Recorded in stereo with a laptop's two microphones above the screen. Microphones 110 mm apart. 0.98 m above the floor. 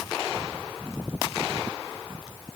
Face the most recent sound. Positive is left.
No sound to turn to.